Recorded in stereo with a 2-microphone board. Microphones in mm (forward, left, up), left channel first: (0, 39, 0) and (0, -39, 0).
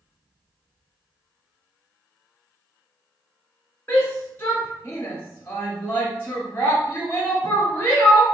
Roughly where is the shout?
Left.